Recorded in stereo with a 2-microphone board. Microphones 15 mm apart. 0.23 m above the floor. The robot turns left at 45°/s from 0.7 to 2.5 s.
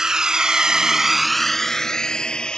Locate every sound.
0.0 s a drone: 40° right (ahead or behind); by 2.6 s 75° left (ahead or behind)